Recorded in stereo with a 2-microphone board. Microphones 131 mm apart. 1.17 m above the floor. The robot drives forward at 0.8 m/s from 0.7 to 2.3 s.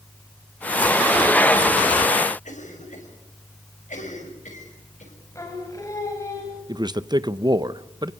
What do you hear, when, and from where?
2.5 s a cough: 85° left, 6.5 m
5.3 s singing: 25° left (ahead or behind), 4 m
6.7 s a man speaking: 35° right (ahead or behind), 0.7 m